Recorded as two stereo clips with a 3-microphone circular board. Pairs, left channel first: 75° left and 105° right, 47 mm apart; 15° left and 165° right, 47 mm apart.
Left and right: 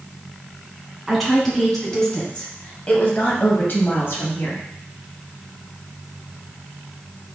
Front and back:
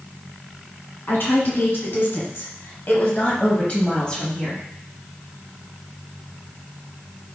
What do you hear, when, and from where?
1.1 s a woman speaking: 15° right, 2.5 m; by 4.7 s 90° left, 1.8 m